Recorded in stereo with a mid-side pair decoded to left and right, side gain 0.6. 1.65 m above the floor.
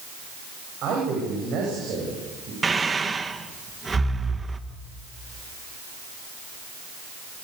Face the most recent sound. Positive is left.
turn(degrees=-20)